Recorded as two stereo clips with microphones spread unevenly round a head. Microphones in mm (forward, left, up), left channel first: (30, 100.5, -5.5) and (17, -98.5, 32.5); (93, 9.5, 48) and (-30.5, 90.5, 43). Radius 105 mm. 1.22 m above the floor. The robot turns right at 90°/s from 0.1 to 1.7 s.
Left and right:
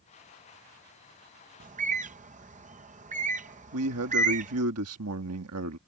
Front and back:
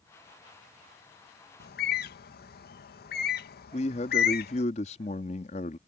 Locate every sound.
1.6 s a bird: 45° right; by 4.6 s 40° right
3.7 s a man speaking: 85° right